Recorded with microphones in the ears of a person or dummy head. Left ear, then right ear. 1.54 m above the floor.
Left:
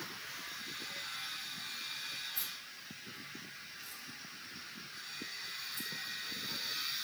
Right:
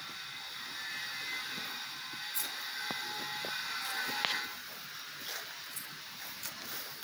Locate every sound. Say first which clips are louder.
2.3 s keys jangling: right 6 dB; 60° right (ahead or behind), 2.5 m; by 7.0 s 15° right (ahead or behind), 4 m